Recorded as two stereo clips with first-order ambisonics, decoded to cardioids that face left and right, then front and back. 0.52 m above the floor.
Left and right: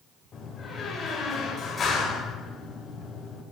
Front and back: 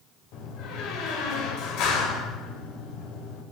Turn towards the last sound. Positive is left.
turn(degrees=25)